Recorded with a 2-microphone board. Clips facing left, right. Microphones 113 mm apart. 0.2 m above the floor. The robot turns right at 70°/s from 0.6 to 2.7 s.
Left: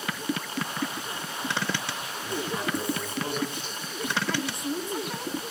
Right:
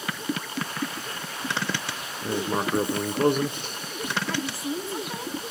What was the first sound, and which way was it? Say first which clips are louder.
Writing: right 5 dB; 115° right.